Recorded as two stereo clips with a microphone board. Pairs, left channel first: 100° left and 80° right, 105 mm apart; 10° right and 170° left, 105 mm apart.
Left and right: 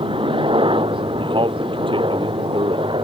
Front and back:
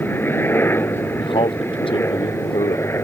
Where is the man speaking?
45° right.